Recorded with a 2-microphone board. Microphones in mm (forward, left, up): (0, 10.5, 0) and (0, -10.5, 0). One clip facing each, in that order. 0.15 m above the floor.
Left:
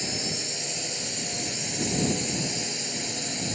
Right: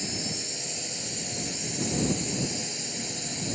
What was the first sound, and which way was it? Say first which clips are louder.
A drone: left 3 dB; 15° left (ahead or behind).